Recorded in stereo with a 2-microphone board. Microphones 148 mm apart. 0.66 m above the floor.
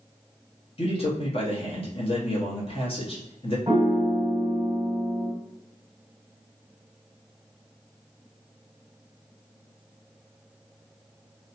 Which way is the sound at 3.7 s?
25° right (ahead or behind).